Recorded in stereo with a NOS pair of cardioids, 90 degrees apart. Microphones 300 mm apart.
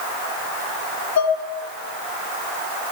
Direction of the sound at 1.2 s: 60° left.